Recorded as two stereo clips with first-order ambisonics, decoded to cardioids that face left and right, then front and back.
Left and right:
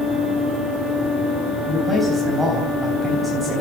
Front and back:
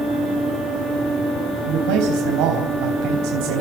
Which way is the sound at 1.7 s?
170° right.